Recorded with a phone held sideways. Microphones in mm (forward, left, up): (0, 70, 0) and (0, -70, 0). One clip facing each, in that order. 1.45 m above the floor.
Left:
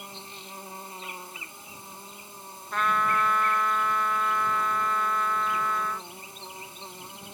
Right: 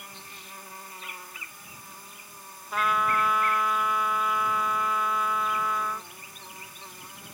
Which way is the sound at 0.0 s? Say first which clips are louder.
Left 4 dB; 25° left (ahead or behind).